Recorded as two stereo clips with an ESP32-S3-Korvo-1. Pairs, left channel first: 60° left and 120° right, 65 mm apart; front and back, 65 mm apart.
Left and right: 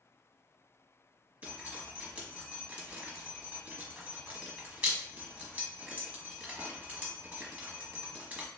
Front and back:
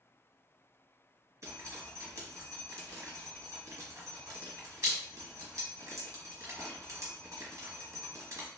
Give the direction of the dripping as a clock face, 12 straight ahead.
6 o'clock.